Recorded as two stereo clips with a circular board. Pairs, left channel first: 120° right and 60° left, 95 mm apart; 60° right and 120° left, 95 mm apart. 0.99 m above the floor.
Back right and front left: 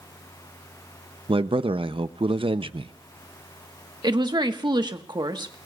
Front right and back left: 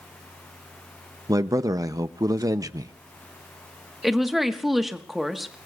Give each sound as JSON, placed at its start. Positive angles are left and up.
{"t": 1.3, "sound": "a man speaking", "azimuth_deg": 75, "distance_m": 0.6}
{"t": 4.0, "sound": "a woman speaking", "azimuth_deg": 30, "distance_m": 1.3}